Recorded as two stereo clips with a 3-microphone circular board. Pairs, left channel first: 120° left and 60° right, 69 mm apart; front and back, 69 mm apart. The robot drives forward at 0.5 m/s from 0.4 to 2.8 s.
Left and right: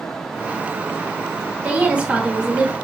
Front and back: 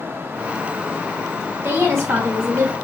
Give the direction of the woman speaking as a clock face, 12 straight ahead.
4 o'clock.